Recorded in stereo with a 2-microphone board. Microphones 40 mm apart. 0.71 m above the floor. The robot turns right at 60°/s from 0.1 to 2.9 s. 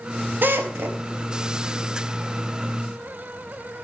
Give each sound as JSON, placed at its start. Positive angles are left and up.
{"t": 0.4, "sound": "a drill", "side_deg": -55, "distance_m": 3.5}